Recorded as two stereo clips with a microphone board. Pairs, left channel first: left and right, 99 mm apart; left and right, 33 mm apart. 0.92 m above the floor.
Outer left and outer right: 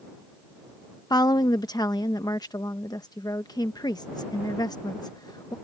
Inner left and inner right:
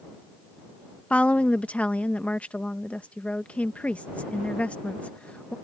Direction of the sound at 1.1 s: 45° left (ahead or behind).